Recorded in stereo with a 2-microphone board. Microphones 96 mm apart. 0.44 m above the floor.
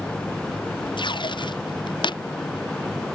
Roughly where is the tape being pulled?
Left.